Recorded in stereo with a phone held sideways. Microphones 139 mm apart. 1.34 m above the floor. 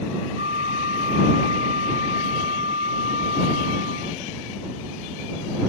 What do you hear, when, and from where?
0.4 s a flute: 55° right (ahead or behind)